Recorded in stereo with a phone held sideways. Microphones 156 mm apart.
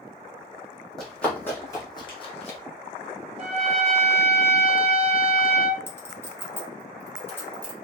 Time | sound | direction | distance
1.0 | running footsteps | centre (ahead or behind) | 1.9 m
3.4 | a trumpet | 40° right (ahead or behind) | 0.8 m
5.9 | a clink | 15° left (ahead or behind) | 1.1 m